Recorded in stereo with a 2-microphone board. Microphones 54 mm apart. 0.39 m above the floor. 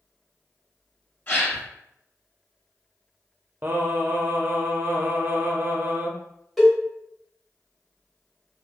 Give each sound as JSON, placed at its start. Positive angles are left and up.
{"t": 1.3, "sound": "a gasp", "side_deg": 40, "distance_m": 1.3}
{"t": 3.6, "sound": "singing", "side_deg": -40, "distance_m": 0.5}
{"t": 6.6, "sound": "a cowbell", "side_deg": 0, "distance_m": 1.1}